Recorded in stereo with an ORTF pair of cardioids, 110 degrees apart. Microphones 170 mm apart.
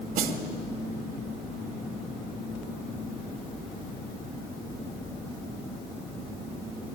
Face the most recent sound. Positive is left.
turn(degrees=-55)